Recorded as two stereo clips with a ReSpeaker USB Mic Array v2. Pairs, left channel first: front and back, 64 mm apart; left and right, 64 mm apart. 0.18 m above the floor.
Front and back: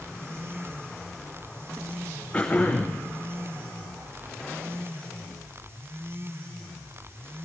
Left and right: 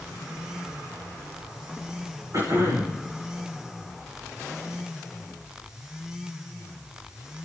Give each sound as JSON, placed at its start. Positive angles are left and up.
{"t": 2.3, "sound": "throat clearing", "azimuth_deg": -70, "distance_m": 7.5}